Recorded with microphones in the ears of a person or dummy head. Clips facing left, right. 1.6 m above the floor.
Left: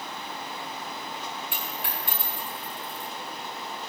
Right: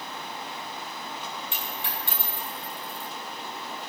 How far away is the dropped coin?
About 4.5 m.